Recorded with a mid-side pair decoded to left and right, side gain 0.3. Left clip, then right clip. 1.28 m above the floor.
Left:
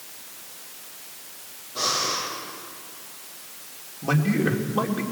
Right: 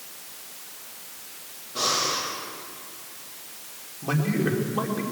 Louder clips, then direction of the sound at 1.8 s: Even; 35° right.